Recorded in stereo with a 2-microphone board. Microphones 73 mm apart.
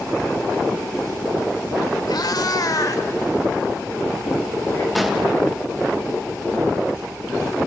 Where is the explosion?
Centre (ahead or behind), 1.4 m.